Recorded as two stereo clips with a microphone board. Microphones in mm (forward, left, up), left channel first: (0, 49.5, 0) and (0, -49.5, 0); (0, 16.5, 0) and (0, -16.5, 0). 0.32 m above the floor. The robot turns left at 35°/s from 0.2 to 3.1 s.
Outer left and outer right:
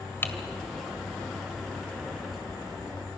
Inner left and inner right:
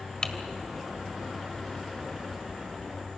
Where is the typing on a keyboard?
25° left (ahead or behind), 1.6 m.